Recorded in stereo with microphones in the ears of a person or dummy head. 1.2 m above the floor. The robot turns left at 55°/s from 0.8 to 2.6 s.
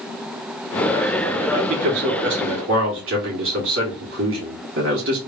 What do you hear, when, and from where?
1.5 s a man speaking: 40° right, 1.2 m; by 5.2 s 100° right, 1.2 m